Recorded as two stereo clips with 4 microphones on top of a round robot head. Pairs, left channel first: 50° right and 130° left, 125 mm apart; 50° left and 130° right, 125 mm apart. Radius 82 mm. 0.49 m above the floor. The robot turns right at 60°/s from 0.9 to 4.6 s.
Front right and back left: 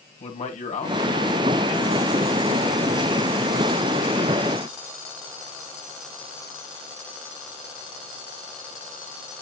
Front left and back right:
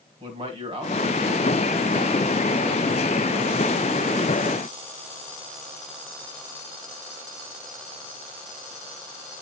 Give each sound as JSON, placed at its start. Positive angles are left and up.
{"t": 0.2, "sound": "a man speaking", "azimuth_deg": -80, "distance_m": 3.0}